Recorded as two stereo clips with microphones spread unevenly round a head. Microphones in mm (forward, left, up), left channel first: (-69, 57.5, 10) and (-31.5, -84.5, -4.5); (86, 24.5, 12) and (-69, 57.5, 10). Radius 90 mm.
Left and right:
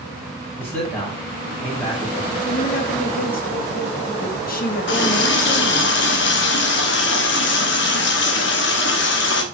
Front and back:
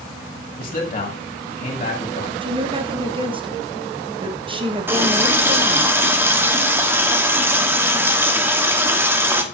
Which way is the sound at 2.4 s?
115° left.